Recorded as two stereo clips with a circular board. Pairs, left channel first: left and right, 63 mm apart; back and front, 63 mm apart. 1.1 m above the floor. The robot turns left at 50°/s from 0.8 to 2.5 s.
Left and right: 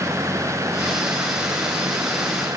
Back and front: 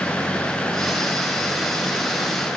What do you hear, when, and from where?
Only background noise.